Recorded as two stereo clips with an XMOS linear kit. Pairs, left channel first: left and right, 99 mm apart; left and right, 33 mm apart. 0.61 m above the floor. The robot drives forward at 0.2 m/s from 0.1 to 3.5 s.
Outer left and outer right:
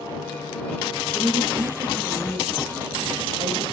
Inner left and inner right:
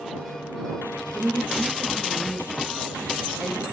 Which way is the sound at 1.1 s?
60° right (ahead or behind).